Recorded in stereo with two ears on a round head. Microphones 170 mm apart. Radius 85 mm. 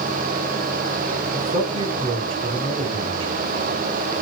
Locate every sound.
1.3 s a man speaking: 30° right (ahead or behind), 3 m